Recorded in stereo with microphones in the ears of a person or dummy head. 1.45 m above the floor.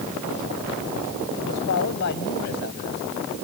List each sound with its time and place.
1.4 s a man speaking: 65° left (ahead or behind); by 3.4 s 60° left (ahead or behind)